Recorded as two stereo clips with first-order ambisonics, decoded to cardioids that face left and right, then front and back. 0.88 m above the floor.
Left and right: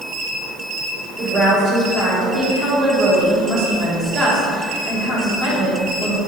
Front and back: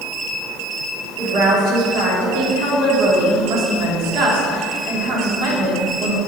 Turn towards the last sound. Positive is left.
turn(degrees=-165)